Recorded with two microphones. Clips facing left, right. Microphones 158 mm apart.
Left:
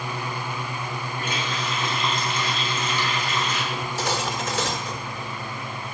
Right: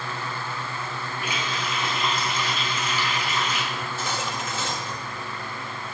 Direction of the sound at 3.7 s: 70° left (ahead or behind).